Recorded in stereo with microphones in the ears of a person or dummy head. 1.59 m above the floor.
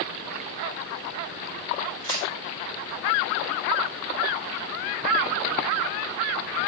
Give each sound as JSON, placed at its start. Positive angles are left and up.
{"t": 2.0, "sound": "tearing paper", "side_deg": -40, "distance_m": 2.0}